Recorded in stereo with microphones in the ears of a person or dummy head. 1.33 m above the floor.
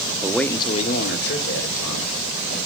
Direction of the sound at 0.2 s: 10° right (ahead or behind).